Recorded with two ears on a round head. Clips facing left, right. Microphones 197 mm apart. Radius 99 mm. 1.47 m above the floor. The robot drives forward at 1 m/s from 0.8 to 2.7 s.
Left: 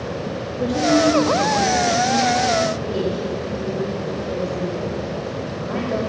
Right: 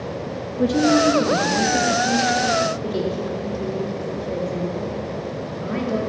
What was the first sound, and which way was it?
A woman speaking, 60° right (ahead or behind).